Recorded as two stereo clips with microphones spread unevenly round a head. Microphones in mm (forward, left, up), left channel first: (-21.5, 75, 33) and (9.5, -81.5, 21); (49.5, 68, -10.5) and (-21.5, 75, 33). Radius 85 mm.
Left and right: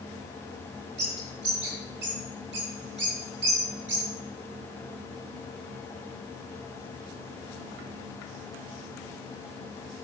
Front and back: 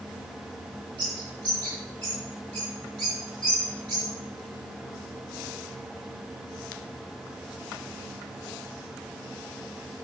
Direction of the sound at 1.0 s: 95° right.